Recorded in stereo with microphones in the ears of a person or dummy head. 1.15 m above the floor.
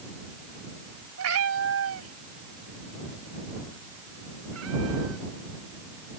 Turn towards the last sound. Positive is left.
turn(degrees=-80)